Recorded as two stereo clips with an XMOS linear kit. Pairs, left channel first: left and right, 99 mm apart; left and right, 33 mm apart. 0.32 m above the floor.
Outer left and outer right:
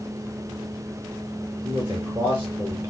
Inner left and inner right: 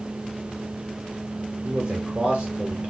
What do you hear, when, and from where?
1.6 s a man speaking: 25° right (ahead or behind), 1.4 m